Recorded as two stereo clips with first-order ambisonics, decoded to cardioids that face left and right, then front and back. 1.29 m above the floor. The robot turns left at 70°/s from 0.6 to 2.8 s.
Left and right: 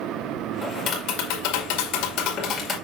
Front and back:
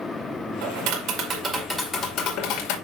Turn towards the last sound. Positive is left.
turn(degrees=15)